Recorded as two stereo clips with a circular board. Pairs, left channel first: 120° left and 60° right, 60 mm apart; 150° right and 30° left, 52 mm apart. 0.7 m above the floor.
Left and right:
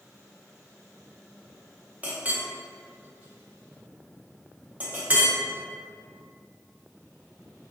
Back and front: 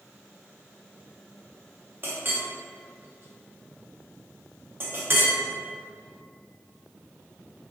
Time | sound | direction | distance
2.0 | a clink | straight ahead | 0.6 m